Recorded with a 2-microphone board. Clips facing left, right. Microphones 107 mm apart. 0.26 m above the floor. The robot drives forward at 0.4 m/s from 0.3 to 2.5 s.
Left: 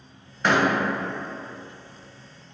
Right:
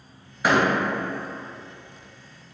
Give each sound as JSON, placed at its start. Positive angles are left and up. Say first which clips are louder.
{"t": 0.4, "sound": "a door slam", "louder": "right 1 dB", "side_deg": -5, "distance_m": 0.6}